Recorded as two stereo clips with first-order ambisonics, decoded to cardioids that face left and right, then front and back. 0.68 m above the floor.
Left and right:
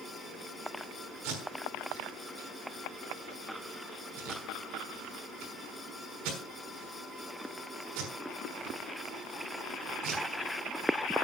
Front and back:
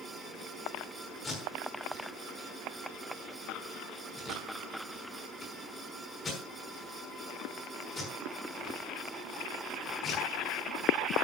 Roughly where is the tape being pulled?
Right.